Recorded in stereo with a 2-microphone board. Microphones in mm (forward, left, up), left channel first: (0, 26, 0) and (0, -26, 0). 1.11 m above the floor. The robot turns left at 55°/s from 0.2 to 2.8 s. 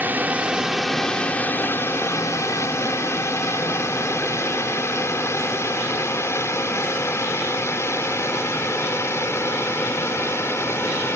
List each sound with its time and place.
0.0 s a drone: 35° right (ahead or behind); by 11.2 s 55° left (ahead or behind)